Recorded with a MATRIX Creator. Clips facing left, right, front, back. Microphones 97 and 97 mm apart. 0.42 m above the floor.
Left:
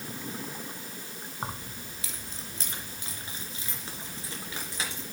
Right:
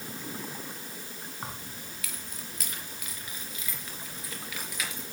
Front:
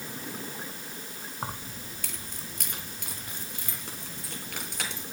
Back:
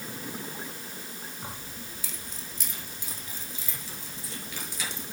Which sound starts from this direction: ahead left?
Keys jangling, at 1.4 s.